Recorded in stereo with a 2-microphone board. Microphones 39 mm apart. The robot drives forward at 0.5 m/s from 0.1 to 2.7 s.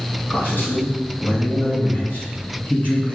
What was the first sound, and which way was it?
A man speaking, 65° left (ahead or behind).